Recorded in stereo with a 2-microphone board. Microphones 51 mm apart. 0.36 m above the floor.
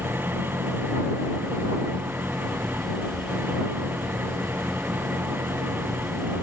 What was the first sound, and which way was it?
An engine running, 40° right (ahead or behind).